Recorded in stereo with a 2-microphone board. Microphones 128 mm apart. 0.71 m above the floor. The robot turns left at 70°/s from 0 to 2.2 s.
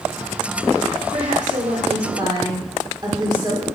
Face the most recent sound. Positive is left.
turn(degrees=-145)